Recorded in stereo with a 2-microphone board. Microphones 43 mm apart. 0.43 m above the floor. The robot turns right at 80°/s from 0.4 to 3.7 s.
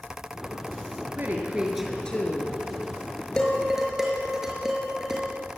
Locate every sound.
1.2 s a woman speaking: 50° right, 5.5 m; by 2.6 s 60° left, 5.5 m
3.4 s dishes clattering: 15° left (ahead or behind), 5.5 m; by 5.2 s 15° right (ahead or behind), 5.5 m